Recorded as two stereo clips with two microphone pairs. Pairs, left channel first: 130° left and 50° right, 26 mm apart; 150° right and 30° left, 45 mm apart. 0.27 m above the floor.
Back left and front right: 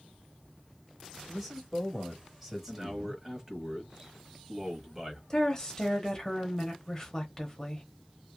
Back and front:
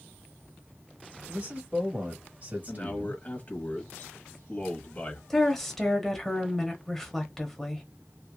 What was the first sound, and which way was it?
A man speaking, 30° left.